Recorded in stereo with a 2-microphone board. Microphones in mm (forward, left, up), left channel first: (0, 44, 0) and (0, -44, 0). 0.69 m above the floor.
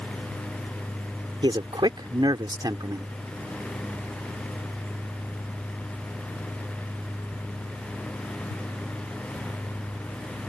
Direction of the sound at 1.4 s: 65° right (ahead or behind).